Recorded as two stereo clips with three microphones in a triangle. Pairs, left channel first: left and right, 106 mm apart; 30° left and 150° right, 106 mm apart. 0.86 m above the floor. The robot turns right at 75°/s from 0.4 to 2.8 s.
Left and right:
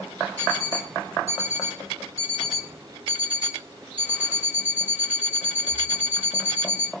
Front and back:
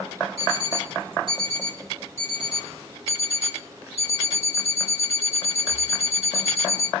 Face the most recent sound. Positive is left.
turn(degrees=-165)